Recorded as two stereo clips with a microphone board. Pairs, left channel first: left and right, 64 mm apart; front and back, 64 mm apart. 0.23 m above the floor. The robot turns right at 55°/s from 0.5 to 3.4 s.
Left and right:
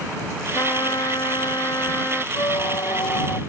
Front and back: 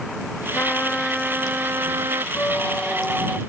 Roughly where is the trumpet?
Ahead left.